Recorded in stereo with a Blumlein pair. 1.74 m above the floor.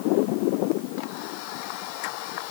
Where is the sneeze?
No sneeze in this recording.